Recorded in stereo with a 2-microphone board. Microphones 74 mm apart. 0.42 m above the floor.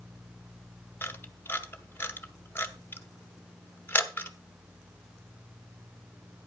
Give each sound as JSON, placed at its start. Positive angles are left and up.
{"t": 1.0, "sound": "a camera shutter", "side_deg": 30, "distance_m": 0.8}